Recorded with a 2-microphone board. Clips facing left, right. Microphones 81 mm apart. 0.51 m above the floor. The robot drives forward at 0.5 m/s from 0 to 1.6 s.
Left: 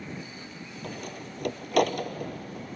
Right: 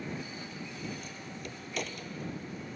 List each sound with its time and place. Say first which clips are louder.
0.8 s a door slam: left 3 dB; 60° left (ahead or behind)